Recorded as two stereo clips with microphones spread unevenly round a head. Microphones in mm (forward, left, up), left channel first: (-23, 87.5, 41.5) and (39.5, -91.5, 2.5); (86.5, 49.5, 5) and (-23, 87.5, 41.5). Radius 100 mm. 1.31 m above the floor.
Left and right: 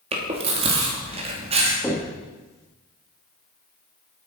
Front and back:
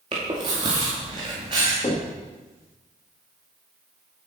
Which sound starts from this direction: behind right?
Chewing, at 0.1 s.